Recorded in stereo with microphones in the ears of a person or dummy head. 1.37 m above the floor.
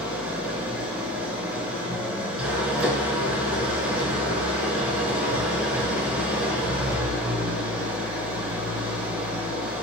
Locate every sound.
0.0 s an engine running: 15° right (ahead or behind), 1.1 m